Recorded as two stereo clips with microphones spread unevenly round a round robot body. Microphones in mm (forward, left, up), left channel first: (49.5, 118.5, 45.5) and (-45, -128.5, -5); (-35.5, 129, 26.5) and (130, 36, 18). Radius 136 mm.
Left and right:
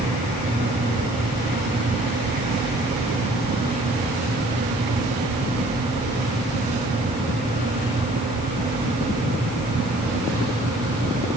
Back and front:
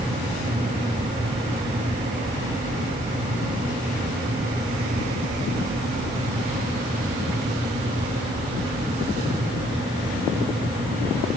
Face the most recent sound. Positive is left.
No sound to turn to.